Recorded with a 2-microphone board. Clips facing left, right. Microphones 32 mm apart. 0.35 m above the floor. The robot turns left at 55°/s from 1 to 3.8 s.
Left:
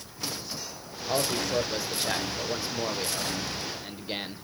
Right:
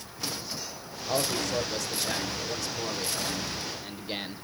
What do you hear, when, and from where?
1.1 s a man speaking: 5° left (ahead or behind), 0.8 m; by 4.5 s 10° left (ahead or behind), 0.8 m